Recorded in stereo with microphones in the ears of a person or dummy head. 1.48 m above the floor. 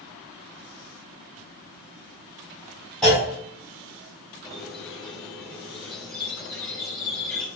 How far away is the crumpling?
No crumpling in this recording.